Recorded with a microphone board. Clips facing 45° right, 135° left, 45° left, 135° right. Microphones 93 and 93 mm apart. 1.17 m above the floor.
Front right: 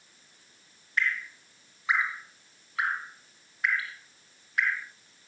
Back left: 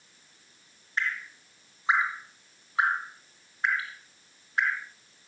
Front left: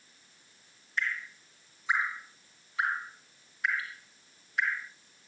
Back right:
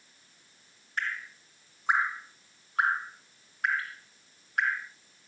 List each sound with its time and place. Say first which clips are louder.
1.0 s dripping: front right 2 dB, even; 165° right, 3 m